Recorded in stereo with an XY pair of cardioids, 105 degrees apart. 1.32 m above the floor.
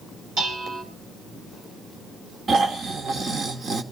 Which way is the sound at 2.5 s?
50° right.